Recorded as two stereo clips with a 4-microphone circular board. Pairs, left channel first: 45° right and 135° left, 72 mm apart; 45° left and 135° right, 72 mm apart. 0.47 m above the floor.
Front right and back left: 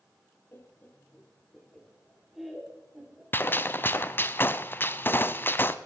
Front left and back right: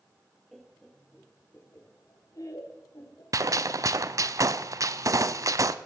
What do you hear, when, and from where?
0.5 s laughter: 45° right, 1.2 m; by 3.2 s 55° left, 1.9 m
3.3 s a gunshot: 100° right, 0.5 m